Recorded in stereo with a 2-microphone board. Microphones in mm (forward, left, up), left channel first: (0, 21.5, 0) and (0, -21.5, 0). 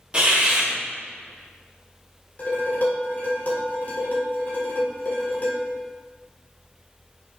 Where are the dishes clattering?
40° left (ahead or behind), 2 m.